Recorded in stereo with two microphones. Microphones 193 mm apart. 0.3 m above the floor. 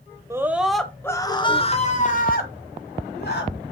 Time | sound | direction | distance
0.3 | a scream | 15° right (ahead or behind) | 1.1 m